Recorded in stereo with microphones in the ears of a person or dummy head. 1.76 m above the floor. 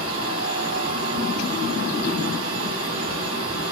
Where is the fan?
75° right (ahead or behind), 2.5 m.